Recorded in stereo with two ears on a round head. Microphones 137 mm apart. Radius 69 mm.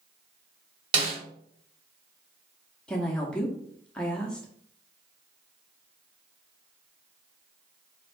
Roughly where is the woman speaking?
Centre.